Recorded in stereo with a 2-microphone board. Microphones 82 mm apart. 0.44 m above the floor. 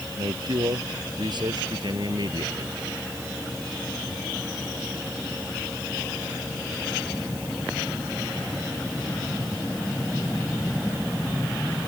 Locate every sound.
0.2 s a man speaking: 65° right (ahead or behind)